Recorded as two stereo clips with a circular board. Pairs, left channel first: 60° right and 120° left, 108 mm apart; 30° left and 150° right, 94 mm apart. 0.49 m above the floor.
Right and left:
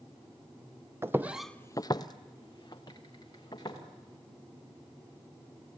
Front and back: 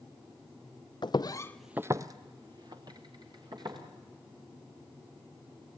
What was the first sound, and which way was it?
Footsteps, 55° left.